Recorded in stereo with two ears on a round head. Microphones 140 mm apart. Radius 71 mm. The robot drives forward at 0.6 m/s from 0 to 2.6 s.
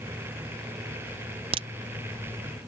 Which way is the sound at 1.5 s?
35° right (ahead or behind).